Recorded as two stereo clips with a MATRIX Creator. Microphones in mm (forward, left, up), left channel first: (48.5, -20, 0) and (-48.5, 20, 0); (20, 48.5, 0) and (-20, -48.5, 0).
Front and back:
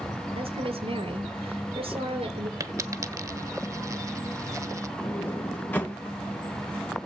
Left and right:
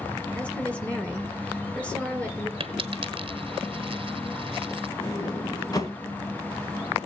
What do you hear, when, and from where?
0.3 s a woman speaking: 145° left, 3.5 m
2.6 s a dropped coin: 145° right, 0.8 m
5.0 s a sliding door: 40° left, 2 m